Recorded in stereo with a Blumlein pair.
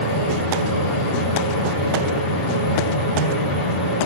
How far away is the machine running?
About 1.0 m.